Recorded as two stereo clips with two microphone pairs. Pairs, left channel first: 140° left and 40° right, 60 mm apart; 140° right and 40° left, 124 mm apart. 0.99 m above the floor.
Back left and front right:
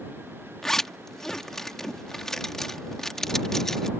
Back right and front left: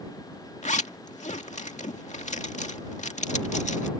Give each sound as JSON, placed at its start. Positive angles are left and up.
{"t": 0.6, "sound": "a zipper", "azimuth_deg": -135}